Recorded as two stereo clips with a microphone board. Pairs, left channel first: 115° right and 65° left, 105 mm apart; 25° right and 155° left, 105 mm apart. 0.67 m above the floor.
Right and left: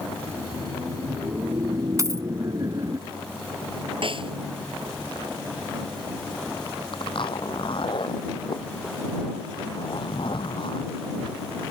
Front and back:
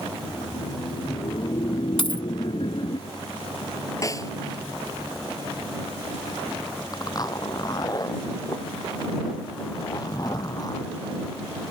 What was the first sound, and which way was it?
Laughter, 15° left.